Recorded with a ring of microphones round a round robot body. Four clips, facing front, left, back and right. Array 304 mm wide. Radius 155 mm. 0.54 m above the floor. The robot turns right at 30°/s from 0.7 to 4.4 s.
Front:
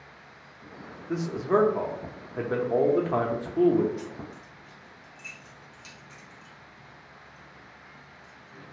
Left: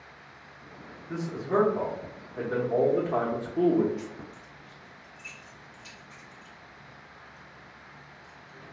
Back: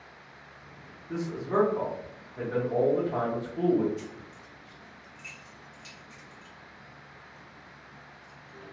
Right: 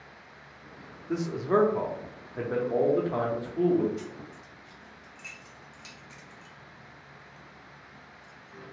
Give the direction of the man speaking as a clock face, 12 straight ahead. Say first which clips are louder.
Right 3 dB, front 5 dB; 2 o'clock.